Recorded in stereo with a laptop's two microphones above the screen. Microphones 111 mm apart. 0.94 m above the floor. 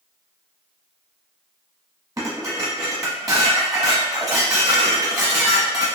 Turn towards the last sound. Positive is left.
turn(degrees=-30)  # may be behind; listen again after turning